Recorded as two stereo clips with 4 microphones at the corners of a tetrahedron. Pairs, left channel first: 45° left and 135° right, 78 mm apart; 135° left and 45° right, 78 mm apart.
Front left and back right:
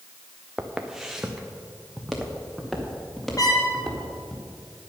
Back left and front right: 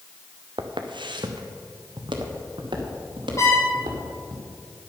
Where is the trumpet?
80° left, 3 m.